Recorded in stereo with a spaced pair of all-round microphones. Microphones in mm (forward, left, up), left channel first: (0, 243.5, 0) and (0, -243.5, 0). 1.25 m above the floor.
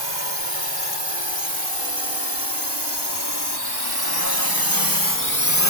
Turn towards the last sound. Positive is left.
turn(degrees=30)  # may be behind; listen again after turning